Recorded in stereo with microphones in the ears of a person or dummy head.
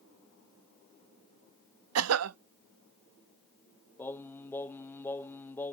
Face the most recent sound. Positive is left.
turn(degrees=10)  # may be behind; listen again after turning